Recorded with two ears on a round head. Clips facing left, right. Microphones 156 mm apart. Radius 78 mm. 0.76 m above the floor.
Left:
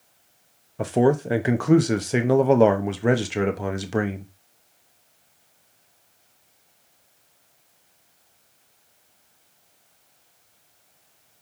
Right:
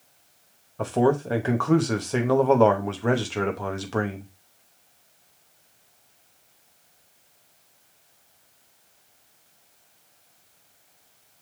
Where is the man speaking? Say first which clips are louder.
Left 2 dB; 15° left (ahead or behind), 0.6 m.